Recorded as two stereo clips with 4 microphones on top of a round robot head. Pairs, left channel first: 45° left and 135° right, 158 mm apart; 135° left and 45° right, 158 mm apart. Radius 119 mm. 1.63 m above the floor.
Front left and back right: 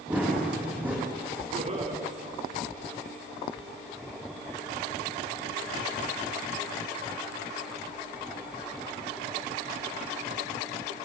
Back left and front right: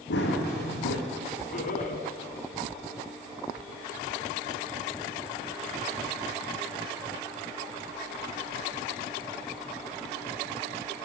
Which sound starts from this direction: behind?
Laughter, at 1.5 s.